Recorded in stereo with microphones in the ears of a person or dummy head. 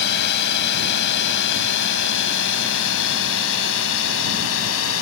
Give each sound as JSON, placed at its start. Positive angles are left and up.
{"t": 0.0, "sound": "a drone", "side_deg": 60}